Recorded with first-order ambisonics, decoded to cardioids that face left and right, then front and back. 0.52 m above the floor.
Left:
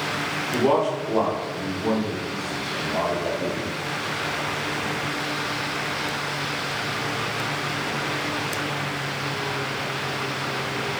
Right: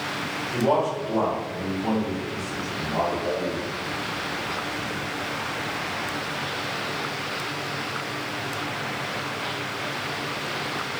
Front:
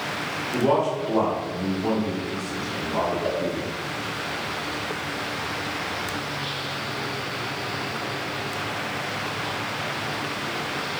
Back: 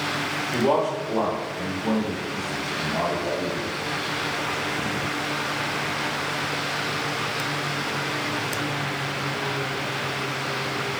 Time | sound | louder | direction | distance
0.5 | a man speaking | left 1 dB, front 1 dB | 100° left | 0.9 m
3.2 | a cowbell | even, front 1 dB | 20° left | 1.4 m